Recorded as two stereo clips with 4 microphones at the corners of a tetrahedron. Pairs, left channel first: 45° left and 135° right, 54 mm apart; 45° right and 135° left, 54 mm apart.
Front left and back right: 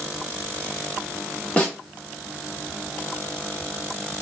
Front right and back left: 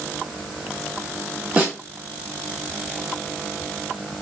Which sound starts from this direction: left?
A snare drum, at 1.6 s.